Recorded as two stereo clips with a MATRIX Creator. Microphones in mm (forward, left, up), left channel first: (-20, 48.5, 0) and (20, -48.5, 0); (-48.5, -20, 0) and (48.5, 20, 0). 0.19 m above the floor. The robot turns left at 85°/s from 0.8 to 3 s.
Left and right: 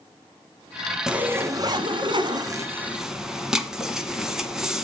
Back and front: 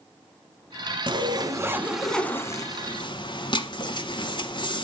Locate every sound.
1.1 s a zipper: 15° left, 1.2 m; by 4.8 s 150° right, 1.2 m